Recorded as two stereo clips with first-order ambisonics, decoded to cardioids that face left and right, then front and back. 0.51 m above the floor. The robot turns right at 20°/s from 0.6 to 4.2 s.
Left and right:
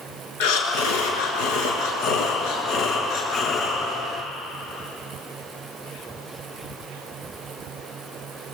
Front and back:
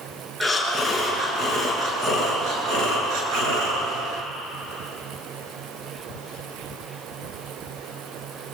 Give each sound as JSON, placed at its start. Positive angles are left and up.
{"t": 0.4, "sound": "breathing", "azimuth_deg": 90, "distance_m": 7.0}